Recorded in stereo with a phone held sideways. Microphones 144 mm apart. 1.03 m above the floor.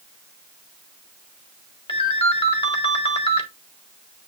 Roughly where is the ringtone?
Left.